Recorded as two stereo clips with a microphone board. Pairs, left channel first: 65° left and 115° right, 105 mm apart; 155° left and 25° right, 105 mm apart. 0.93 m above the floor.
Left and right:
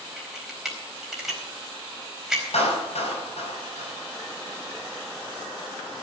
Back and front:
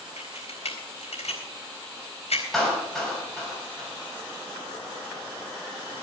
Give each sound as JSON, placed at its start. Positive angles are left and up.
{"t": 0.2, "sound": "a camera shutter", "azimuth_deg": 160, "distance_m": 4.0}
{"t": 2.5, "sound": "a clap", "azimuth_deg": 70, "distance_m": 6.0}